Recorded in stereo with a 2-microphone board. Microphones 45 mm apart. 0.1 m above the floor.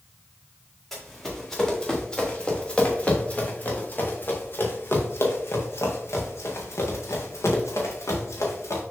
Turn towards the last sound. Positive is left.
turn(degrees=90)